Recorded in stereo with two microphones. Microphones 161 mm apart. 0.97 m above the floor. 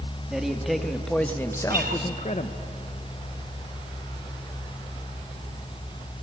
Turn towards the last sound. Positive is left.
turn(degrees=-65)  # may be behind; listen again after turning